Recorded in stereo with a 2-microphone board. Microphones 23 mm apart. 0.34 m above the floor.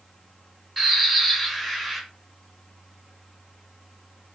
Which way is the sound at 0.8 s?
Centre (ahead or behind).